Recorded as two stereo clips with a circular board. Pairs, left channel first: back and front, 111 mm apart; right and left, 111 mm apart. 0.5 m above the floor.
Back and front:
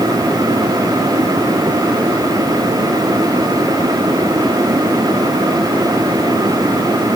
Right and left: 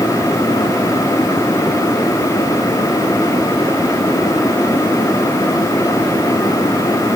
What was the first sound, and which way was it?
Only background noise.